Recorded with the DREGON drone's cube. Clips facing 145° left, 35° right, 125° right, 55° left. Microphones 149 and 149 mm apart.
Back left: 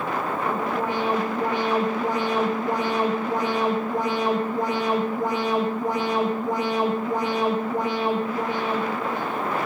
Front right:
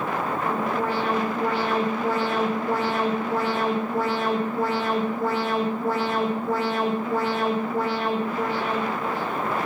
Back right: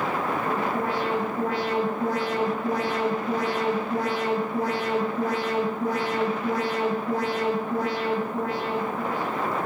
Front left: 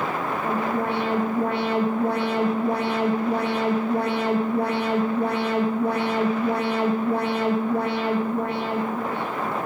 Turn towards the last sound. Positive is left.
turn(degrees=75)